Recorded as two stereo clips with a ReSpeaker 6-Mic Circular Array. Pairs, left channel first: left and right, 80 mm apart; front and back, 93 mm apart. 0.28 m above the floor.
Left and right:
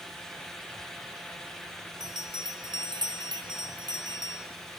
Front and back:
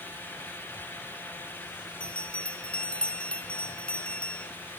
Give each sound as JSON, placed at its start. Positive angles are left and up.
{"t": 2.0, "sound": "a bell", "azimuth_deg": -75, "distance_m": 3.5}